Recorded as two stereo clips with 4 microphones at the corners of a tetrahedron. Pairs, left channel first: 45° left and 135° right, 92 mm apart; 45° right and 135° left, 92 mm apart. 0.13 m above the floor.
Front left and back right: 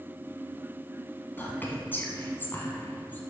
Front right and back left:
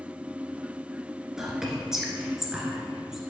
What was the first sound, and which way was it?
Whispering, 60° left.